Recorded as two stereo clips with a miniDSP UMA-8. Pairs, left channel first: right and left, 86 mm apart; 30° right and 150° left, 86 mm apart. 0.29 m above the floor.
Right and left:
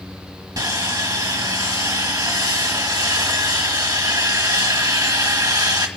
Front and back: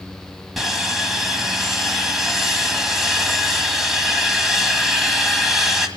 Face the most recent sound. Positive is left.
turn(degrees=65)